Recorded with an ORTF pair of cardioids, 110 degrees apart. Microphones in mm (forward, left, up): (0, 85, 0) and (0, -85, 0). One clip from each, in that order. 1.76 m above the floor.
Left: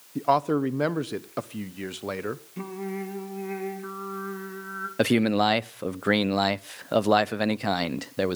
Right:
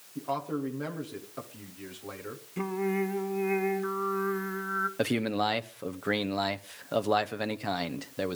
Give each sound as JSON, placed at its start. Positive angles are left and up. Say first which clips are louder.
{"t": 0.1, "sound": "a man speaking", "louder": "left 10 dB", "azimuth_deg": 60, "distance_m": 1.2}
{"t": 2.6, "sound": "singing", "louder": "right 4 dB", "azimuth_deg": -15, "distance_m": 2.0}
{"t": 5.0, "sound": "a man speaking", "louder": "left 12 dB", "azimuth_deg": 30, "distance_m": 0.6}